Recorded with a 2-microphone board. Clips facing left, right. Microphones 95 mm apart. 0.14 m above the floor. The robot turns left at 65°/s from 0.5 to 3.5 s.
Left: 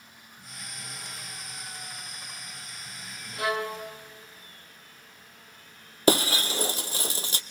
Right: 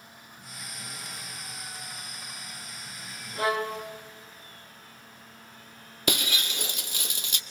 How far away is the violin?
About 3 m.